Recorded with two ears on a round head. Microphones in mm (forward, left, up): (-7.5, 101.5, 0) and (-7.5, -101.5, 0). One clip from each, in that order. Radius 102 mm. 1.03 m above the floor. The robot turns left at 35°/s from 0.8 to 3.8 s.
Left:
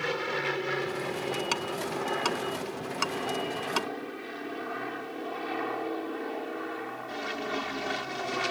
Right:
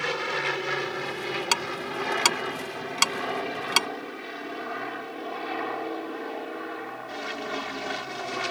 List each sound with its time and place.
0.0 s an aircraft: 25° right (ahead or behind); by 8.5 s 5° right (ahead or behind)
1.5 s ticking: 35° right (ahead or behind); by 3.9 s 65° right (ahead or behind)